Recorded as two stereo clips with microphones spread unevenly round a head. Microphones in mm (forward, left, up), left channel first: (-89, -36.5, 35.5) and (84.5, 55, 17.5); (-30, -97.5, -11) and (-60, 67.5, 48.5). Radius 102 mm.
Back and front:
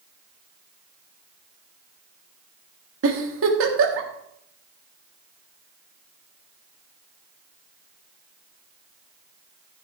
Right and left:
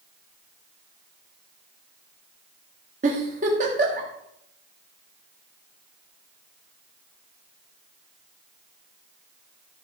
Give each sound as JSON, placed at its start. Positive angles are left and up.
{"t": 3.0, "sound": "a giggle", "azimuth_deg": 50, "distance_m": 1.6}